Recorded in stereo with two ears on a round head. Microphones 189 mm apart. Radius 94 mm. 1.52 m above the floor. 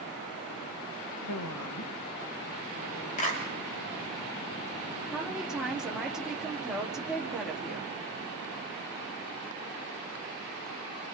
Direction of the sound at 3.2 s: 35° left (ahead or behind).